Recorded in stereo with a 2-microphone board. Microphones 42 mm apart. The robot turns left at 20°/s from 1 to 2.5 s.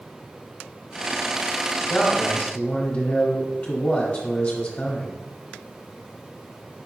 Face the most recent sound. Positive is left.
turn(degrees=25)  # may be behind; listen again after turning